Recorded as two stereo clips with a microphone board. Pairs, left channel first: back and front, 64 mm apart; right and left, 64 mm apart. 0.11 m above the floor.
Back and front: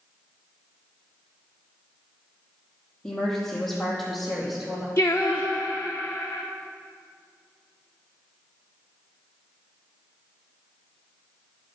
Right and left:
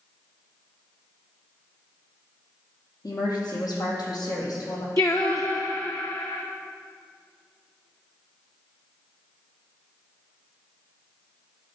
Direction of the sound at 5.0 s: 125° right.